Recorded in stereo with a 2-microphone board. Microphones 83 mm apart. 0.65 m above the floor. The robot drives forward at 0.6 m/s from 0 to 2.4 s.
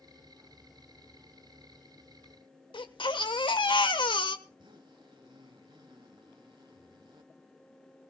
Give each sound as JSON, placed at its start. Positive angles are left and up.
{"t": 2.7, "sound": "a baby crying", "side_deg": 75, "distance_m": 1.4}
{"t": 4.5, "sound": "a zipper", "side_deg": -70, "distance_m": 3.0}